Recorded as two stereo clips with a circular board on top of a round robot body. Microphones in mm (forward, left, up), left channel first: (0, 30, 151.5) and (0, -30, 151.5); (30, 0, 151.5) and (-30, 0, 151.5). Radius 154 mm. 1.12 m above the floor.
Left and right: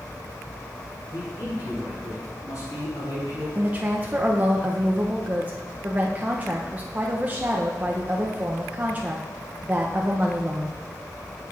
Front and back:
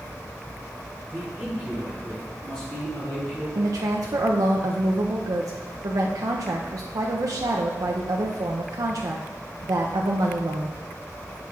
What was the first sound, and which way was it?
A man speaking, 95° left.